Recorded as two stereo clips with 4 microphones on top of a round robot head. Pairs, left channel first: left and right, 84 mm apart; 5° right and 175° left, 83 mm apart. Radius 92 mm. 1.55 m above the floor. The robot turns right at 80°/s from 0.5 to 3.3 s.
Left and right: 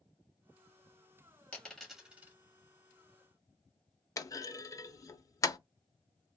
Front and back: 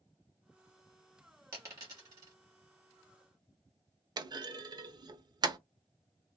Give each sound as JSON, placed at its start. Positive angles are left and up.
{"t": 1.5, "sound": "a dropped coin", "azimuth_deg": 155, "distance_m": 1.0}
{"t": 4.2, "sound": "a clunk", "azimuth_deg": 140, "distance_m": 0.6}